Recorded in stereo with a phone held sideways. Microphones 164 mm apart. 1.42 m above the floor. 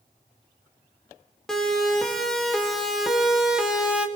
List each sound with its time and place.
1.5 s a siren: 5° left (ahead or behind), 3.5 m; by 4.1 s 5° right (ahead or behind), 1.9 m